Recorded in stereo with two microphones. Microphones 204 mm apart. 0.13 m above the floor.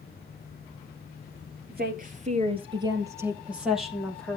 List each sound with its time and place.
1.7 s a woman speaking: 50° right (ahead or behind), 2.5 m; by 4.4 s 5° left (ahead or behind), 4.5 m